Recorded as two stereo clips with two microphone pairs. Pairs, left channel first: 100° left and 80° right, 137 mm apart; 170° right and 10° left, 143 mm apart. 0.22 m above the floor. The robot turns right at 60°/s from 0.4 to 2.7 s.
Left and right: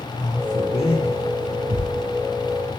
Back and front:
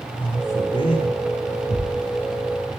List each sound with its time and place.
0.2 s a man speaking: 115° left, 7.5 m; by 1.2 s 160° left, 7.5 m
1.7 s tearing paper: 130° right, 5 m; by 1.9 s 120° right, 5 m